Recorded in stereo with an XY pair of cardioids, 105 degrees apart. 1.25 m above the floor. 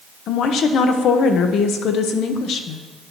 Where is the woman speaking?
70° left, 0.8 m.